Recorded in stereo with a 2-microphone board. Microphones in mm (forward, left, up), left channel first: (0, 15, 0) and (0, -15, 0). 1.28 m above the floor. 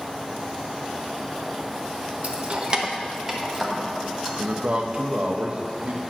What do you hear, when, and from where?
2.2 s keys jangling: 55° right (ahead or behind), 0.8 m; by 4.3 s 10° left (ahead or behind), 1.7 m
4.4 s a man speaking: 40° right (ahead or behind), 0.7 m